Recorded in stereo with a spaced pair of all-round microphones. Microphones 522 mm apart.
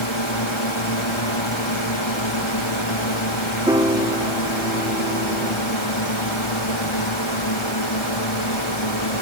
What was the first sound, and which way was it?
A drone, 65° left (ahead or behind).